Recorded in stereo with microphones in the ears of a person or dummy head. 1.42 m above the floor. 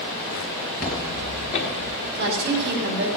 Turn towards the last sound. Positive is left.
turn(degrees=-55)  # may be behind; listen again after turning